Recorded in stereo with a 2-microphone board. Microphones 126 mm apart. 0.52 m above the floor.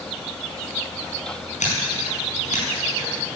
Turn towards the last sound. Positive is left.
turn(degrees=80)